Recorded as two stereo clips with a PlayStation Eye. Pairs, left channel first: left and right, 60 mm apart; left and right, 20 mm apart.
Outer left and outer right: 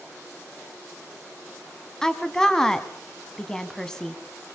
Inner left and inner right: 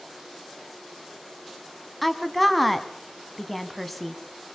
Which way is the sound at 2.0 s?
5° left (ahead or behind).